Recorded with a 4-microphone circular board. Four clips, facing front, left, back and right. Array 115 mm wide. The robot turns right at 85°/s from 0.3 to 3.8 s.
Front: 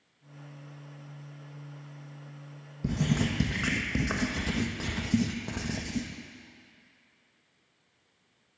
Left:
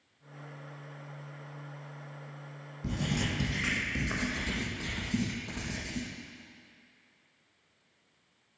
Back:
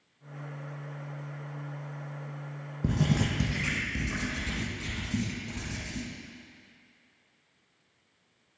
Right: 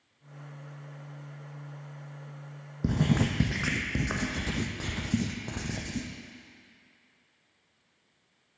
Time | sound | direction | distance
2.8 | writing | 120° right | 1.1 m